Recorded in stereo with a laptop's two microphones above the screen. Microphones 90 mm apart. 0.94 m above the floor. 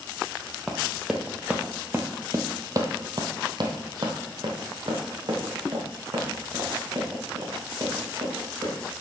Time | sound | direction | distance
0.7 | running footsteps | centre (ahead or behind) | 1.4 m